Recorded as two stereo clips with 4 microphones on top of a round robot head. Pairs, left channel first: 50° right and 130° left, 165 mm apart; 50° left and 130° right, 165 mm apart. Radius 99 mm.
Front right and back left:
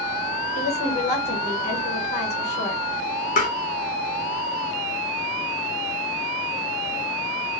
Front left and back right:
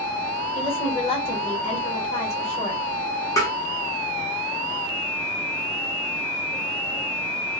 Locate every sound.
0.6 s a woman speaking: 5° right, 1.2 m
3.4 s tapping: 20° right, 0.6 m